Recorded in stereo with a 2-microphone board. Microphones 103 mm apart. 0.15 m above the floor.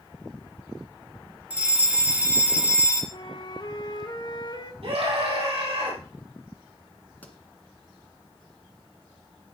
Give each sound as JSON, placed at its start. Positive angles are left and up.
{"t": 1.5, "sound": "a fire alarm", "side_deg": -15, "distance_m": 2.0}
{"t": 3.1, "sound": "a flute", "side_deg": 45, "distance_m": 1.0}
{"t": 4.8, "sound": "a scream", "side_deg": -65, "distance_m": 5.5}
{"t": 7.2, "sound": "a pop", "side_deg": 15, "distance_m": 1.7}